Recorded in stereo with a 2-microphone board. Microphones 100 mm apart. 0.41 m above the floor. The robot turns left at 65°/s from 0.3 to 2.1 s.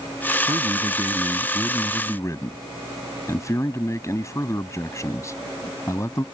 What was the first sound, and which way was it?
A man speaking, 105° right.